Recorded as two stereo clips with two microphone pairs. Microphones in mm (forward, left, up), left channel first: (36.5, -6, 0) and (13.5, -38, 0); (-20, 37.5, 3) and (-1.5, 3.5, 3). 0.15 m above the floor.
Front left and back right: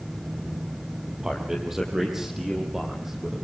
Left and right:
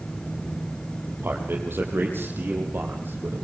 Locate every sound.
1.2 s a man speaking: 45° right, 5.5 m; by 3.4 s 40° right, 7 m